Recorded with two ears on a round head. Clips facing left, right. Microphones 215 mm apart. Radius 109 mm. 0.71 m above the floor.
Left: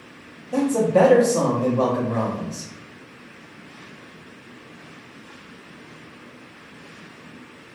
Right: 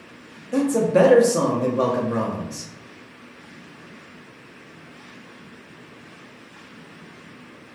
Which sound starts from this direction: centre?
A man speaking, at 0.5 s.